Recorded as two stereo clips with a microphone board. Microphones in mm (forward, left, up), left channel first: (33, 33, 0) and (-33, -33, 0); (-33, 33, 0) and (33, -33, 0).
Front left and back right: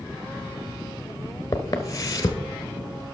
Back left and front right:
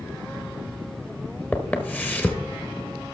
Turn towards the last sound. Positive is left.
turn(degrees=75)